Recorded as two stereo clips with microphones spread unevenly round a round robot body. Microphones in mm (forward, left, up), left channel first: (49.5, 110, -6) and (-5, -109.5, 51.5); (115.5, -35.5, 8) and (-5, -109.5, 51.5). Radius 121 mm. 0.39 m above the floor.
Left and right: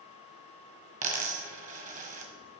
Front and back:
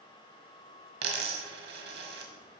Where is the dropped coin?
170° right, 1.5 m.